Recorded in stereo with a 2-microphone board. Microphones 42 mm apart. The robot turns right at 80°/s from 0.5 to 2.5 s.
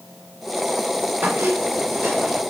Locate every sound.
1.2 s a squeak: 110° right, 6 m; by 2.4 s 15° right, 6 m